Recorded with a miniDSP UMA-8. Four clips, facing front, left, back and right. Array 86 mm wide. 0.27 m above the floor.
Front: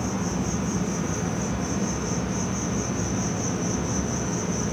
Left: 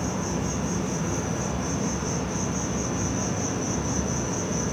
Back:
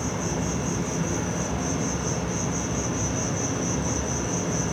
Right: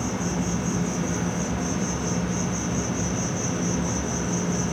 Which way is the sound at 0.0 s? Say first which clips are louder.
Right 1 dB, front 1 dB; 120° right.